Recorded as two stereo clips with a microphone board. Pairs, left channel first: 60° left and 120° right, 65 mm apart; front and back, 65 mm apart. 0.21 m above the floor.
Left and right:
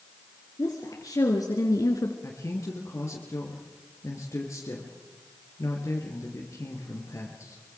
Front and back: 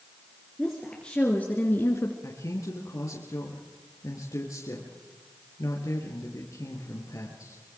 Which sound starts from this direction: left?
A woman speaking, at 0.6 s.